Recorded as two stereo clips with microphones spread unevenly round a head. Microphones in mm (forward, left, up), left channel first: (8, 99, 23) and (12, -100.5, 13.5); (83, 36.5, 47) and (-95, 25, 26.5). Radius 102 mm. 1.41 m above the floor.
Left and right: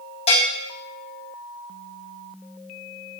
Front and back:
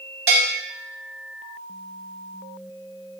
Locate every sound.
0.3 s a bell: 155° left, 1.3 m